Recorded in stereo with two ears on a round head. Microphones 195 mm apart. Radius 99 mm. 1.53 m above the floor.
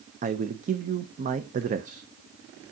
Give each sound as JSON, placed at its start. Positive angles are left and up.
{"t": 0.2, "sound": "a man speaking", "side_deg": -35, "distance_m": 0.6}